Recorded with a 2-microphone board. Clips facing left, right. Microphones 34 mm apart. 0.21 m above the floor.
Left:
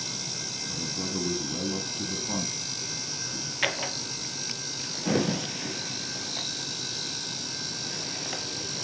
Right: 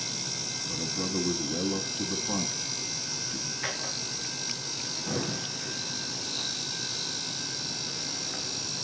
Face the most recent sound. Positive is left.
turn(degrees=70)  # may be behind; listen again after turning